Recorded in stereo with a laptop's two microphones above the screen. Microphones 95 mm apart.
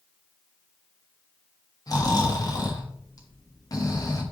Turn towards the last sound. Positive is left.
turn(degrees=40)  # may be behind; listen again after turning